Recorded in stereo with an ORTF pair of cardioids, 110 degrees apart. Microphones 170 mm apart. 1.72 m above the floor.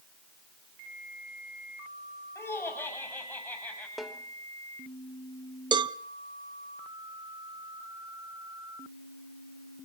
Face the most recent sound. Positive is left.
turn(degrees=-25)